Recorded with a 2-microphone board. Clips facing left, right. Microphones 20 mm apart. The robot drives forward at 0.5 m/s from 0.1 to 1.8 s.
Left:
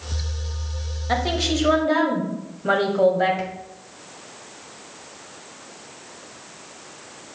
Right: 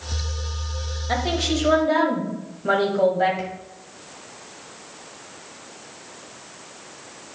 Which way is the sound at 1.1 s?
5° left (ahead or behind).